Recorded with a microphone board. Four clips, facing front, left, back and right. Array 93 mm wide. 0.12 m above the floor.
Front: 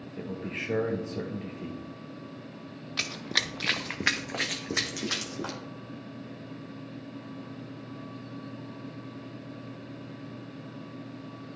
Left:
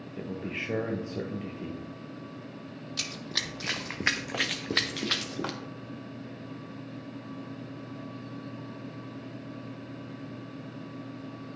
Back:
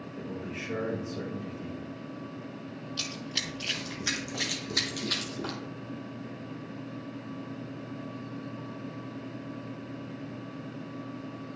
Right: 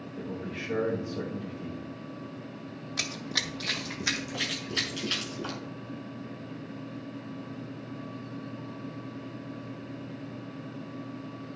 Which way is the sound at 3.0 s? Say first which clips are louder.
Right 3 dB, front 8 dB; 25° right.